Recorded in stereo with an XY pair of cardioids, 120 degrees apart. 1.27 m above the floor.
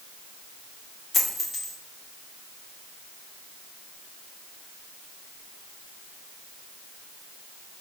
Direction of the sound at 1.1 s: 5° left.